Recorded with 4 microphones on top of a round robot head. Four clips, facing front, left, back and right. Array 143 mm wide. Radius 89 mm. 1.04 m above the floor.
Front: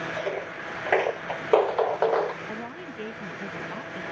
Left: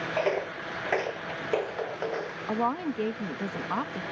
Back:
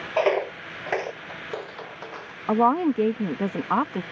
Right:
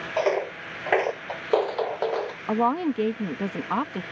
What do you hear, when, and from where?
0.2 s footsteps: 165° right; by 2.4 s 20° right
2.5 s a woman speaking: 160° right